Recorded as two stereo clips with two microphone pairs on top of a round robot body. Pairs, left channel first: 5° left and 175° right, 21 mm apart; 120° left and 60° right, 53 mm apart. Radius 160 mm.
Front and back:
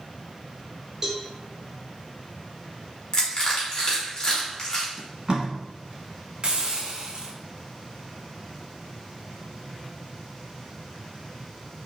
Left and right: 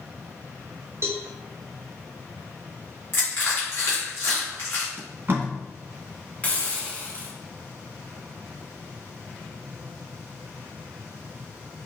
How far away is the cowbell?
About 0.6 m.